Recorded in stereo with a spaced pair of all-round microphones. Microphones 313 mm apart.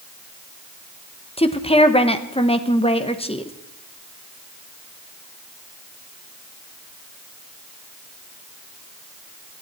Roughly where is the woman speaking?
Centre.